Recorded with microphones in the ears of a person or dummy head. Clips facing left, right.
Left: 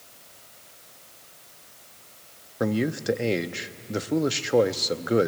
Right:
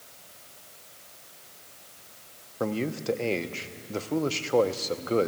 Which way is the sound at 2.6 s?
15° left (ahead or behind).